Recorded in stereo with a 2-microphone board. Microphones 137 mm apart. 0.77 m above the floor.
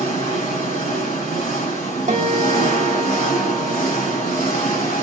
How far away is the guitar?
About 0.9 m.